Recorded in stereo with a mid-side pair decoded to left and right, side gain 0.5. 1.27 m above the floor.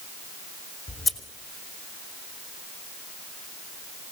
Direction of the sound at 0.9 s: 35° left.